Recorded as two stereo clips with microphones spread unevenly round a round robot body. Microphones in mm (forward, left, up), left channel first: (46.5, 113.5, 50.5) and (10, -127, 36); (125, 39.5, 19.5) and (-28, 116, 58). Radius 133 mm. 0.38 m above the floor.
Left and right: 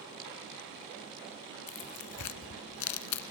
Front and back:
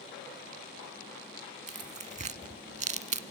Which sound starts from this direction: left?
Tearing paper, at 1.7 s.